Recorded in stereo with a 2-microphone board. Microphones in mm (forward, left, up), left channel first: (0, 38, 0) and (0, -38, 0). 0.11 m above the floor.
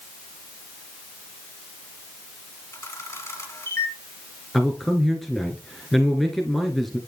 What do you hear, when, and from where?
2.7 s a camera shutter: 35° left (ahead or behind), 2 m
4.5 s a man speaking: centre (ahead or behind), 1.4 m